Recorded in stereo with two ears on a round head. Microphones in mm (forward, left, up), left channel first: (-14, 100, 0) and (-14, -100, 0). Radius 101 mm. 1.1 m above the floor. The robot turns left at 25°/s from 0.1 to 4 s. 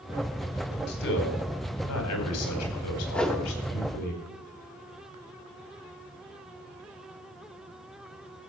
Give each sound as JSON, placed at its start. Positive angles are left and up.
{"t": 0.9, "sound": "a man speaking", "azimuth_deg": 130, "distance_m": 4.5}
{"t": 3.1, "sound": "a whoosh", "side_deg": 5, "distance_m": 1.3}